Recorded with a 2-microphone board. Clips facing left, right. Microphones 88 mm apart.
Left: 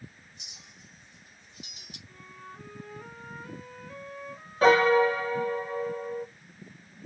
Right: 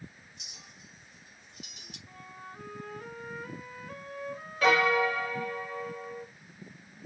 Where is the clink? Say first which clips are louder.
Right 1 dB; 55° right (ahead or behind), 3.5 m.